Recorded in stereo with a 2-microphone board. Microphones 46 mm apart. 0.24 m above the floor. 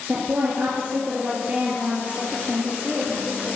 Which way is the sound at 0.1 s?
45° right (ahead or behind).